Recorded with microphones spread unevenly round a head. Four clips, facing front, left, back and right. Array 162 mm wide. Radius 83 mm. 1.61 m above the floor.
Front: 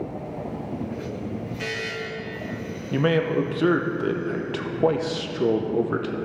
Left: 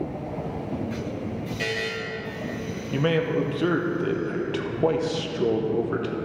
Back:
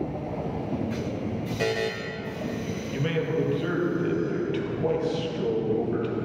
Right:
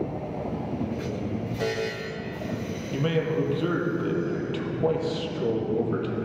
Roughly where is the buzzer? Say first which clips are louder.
Right 3 dB, back 5 dB; behind.